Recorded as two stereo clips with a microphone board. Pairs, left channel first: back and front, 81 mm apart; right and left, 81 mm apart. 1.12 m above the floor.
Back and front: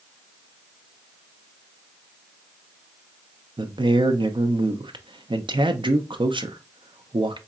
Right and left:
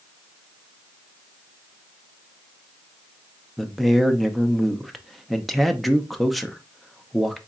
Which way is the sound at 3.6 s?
Straight ahead.